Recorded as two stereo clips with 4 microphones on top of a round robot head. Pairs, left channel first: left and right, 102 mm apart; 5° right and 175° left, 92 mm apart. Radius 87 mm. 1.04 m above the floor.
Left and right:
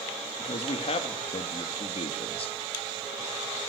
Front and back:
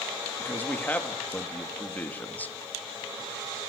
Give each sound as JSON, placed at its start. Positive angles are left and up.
{"t": 0.4, "sound": "a man speaking", "azimuth_deg": 65, "distance_m": 2.5}